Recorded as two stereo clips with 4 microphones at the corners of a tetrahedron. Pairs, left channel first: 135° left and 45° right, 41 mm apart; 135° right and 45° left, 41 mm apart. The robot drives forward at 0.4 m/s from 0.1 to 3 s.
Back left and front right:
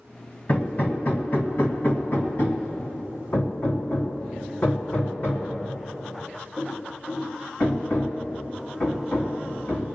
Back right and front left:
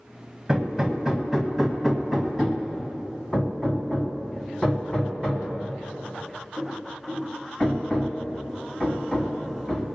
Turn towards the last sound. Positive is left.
turn(degrees=145)